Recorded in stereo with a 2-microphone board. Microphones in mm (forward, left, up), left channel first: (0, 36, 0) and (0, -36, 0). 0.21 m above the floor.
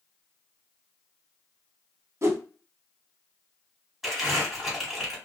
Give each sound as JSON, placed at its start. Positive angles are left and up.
{"t": 2.2, "sound": "a whoosh", "side_deg": -45, "distance_m": 0.6}
{"t": 4.0, "sound": "crumpling", "side_deg": -5, "distance_m": 1.8}